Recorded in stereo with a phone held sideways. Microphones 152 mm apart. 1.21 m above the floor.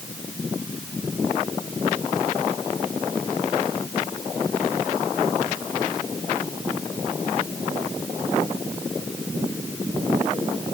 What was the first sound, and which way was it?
Only background noise.